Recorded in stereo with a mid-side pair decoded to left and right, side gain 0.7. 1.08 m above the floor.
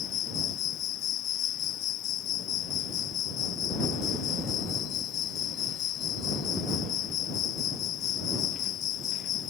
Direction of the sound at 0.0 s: 50° left.